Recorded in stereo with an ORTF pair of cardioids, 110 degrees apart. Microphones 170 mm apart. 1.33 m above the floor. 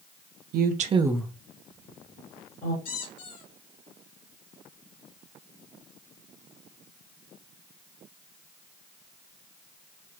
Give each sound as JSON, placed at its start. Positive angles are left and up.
{"t": 0.5, "sound": "a woman speaking", "azimuth_deg": -65, "distance_m": 0.9}
{"t": 2.9, "sound": "a squeak", "azimuth_deg": 65, "distance_m": 2.0}